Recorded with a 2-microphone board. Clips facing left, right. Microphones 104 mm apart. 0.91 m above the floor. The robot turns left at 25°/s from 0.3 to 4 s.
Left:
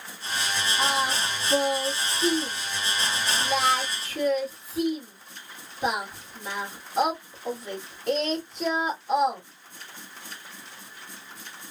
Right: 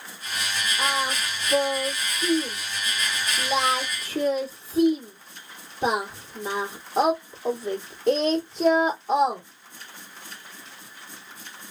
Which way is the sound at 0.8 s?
45° left (ahead or behind).